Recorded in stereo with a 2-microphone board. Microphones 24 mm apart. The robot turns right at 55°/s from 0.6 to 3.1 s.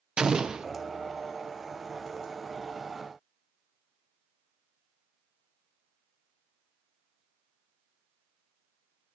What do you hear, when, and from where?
0.2 s an explosion: 40° right (ahead or behind), 0.6 m; by 0.7 s 35° right (ahead or behind), 0.6 m